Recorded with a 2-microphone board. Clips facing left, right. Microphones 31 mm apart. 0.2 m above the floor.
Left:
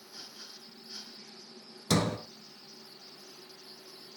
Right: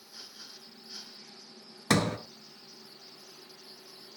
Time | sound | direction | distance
1.9 | a sliding door | 70° right (ahead or behind) | 1.5 m